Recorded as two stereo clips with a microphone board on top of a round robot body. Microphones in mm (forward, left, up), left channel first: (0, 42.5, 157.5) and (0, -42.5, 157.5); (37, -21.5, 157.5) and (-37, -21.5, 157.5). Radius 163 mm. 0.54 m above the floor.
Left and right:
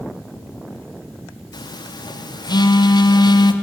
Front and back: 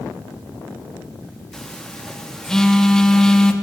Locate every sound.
1.5 s a phone buzzing: 80° left, 1.0 m